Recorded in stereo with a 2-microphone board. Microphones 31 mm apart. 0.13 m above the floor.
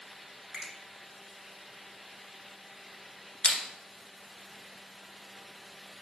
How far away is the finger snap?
About 1.4 m.